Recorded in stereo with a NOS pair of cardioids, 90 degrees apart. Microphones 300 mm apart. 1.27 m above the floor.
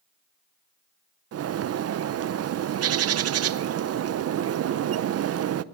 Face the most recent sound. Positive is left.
turn(degrees=-50)